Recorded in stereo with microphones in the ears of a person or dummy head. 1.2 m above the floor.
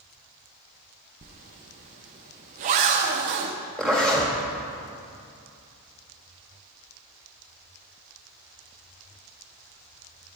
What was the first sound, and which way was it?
A zipper, 35° right (ahead or behind).